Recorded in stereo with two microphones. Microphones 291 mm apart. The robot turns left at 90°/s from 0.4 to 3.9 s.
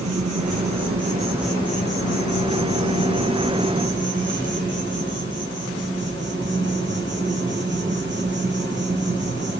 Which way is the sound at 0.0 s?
85° right.